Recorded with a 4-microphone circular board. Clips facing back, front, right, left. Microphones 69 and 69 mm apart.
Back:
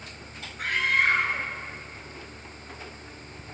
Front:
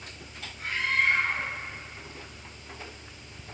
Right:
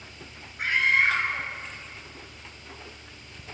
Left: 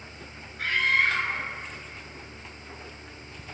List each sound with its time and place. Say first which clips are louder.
0.6 s a scream: back 3 dB, right 2 dB; 160° right, 6.5 m; by 3.5 s 145° right, 5 m